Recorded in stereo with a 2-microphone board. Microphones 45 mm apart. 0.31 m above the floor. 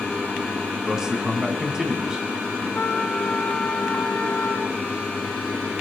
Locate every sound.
0.8 s a man speaking: 20° right (ahead or behind), 2.5 m
2.8 s a trumpet: 40° left (ahead or behind), 2 m